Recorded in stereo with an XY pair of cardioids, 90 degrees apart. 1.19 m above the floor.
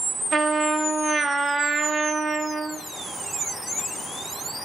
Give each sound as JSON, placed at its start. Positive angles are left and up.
{"t": 0.3, "sound": "a trumpet", "azimuth_deg": -35, "distance_m": 1.0}